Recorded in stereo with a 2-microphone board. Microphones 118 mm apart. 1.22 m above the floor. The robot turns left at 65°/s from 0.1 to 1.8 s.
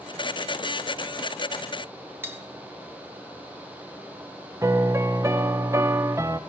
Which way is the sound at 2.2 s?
20° right (ahead or behind).